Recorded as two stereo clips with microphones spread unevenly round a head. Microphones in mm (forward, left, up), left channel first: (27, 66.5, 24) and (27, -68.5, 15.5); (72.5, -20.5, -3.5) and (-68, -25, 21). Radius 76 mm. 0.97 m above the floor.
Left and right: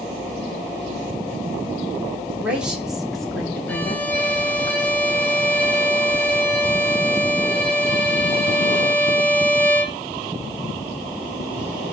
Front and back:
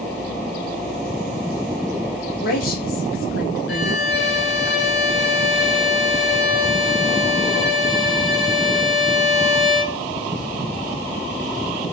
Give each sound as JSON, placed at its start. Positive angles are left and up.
{"t": 2.4, "sound": "a woman speaking", "azimuth_deg": -10, "distance_m": 3.0}
{"t": 3.7, "sound": "a violin", "azimuth_deg": 10, "distance_m": 1.6}